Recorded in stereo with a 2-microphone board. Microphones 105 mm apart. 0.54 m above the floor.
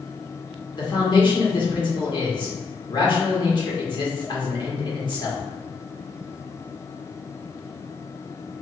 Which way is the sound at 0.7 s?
50° left (ahead or behind).